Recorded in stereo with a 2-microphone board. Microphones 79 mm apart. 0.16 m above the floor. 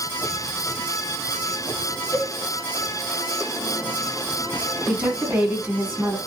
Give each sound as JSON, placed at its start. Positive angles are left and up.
{"t": 2.1, "sound": "a cowbell", "side_deg": 20, "distance_m": 0.5}
{"t": 4.9, "sound": "a woman speaking", "side_deg": -20, "distance_m": 1.3}